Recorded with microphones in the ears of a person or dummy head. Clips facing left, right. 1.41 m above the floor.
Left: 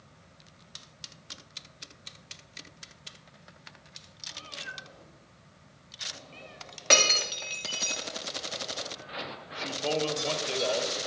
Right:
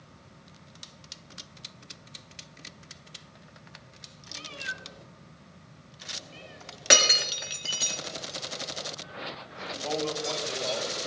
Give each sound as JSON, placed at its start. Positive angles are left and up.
{"t": 4.3, "sound": "a cat meowing", "side_deg": -40, "distance_m": 3.0}
{"t": 6.9, "sound": "breaking glass", "side_deg": -10, "distance_m": 2.0}
{"t": 9.5, "sound": "a man speaking", "side_deg": 45, "distance_m": 3.0}